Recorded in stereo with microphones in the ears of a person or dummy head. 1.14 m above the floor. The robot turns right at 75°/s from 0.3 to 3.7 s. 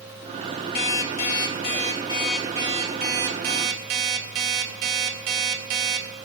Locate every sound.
0.8 s an alarm clock: 55° left, 2 m; by 6.1 s 85° right, 2 m